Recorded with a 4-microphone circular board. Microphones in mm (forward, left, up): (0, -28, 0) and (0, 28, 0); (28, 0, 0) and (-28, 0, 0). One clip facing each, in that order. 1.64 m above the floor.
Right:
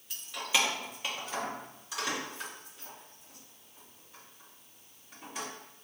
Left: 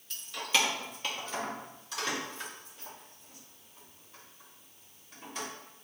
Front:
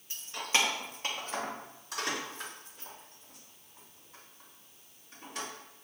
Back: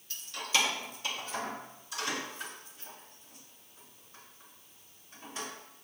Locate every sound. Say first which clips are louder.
0.1 s keys jangling: even, front 1 dB; 10° right, 0.7 m